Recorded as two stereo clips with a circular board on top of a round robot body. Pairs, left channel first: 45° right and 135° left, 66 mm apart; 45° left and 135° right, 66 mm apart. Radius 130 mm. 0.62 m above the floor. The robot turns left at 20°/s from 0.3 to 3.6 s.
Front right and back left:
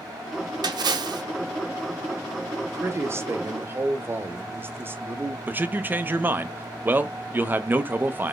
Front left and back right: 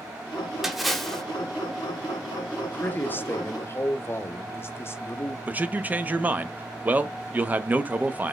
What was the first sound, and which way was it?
A splash, 140° left.